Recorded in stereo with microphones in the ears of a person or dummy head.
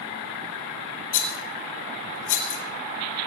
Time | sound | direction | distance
1.1 | a rattle | 55° left (ahead or behind) | 3 m